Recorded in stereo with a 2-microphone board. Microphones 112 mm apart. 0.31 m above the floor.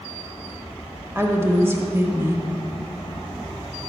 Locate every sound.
1.1 s a woman speaking: 20° right (ahead or behind), 1.2 m